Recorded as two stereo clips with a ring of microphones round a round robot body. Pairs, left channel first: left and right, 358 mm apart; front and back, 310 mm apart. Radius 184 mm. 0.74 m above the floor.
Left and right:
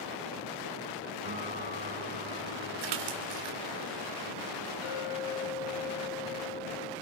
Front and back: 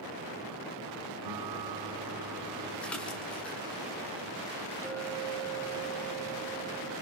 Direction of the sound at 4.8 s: 80° left.